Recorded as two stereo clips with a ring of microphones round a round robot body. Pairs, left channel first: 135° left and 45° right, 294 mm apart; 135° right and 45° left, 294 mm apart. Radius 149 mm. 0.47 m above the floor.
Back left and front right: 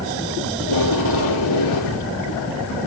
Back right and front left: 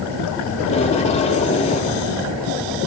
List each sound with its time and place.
0.6 s tape being pulled: 155° left, 4 m